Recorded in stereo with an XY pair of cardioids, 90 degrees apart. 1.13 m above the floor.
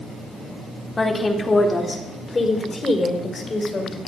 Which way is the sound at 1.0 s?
30° left.